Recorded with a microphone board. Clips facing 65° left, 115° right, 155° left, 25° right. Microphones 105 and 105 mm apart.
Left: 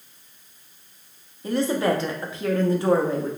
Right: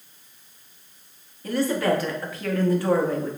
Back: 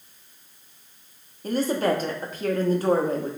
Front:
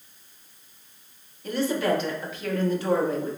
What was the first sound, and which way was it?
A woman speaking, 125° left.